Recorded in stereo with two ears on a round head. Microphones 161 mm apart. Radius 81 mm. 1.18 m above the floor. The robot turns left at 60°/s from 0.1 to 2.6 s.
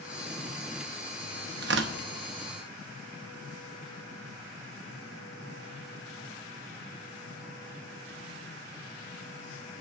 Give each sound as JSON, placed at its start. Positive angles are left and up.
{"t": 1.6, "sound": "tearing paper", "side_deg": -60, "distance_m": 0.9}